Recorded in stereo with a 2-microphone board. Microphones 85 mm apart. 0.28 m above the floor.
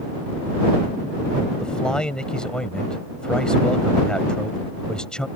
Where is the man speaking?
10° left (ahead or behind).